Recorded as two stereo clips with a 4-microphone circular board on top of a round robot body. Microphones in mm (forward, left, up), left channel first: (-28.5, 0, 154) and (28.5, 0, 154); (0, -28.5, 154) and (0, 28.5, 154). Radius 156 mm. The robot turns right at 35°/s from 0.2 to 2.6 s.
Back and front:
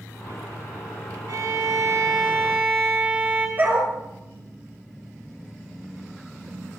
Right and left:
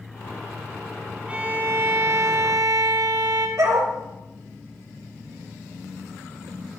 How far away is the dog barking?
About 4.5 m.